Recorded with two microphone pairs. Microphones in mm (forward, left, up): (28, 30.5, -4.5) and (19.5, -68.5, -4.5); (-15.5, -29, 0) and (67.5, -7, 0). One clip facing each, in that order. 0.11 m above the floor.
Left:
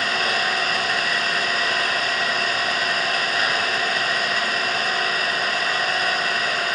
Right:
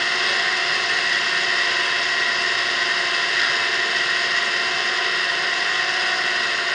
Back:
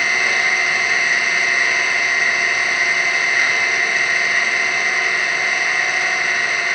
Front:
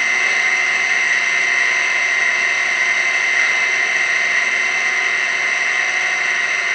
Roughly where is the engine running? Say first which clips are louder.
Left 1 dB, even; left.